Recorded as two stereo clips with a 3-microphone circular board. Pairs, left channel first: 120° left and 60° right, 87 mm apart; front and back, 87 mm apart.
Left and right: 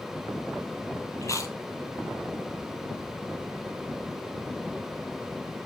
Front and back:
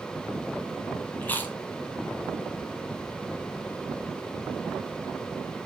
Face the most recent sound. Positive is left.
turn(degrees=70)